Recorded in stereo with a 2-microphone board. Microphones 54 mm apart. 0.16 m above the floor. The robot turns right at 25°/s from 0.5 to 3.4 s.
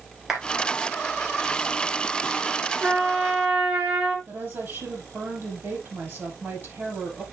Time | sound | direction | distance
0.3 | a clap | 5° right (ahead or behind) | 3 m
2.8 | a trumpet | 20° right (ahead or behind) | 3 m
4.3 | a woman speaking | 45° right (ahead or behind) | 5.5 m